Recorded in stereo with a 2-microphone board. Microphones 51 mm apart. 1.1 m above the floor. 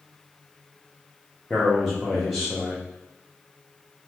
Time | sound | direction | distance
1.5 | a man speaking | centre (ahead or behind) | 0.6 m